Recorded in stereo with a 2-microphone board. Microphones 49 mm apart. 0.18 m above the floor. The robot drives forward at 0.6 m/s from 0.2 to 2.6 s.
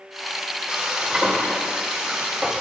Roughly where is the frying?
Centre.